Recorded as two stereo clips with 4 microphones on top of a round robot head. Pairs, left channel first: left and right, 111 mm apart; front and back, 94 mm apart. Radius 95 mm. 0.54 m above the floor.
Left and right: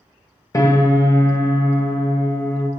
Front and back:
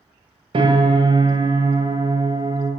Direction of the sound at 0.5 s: 155° left.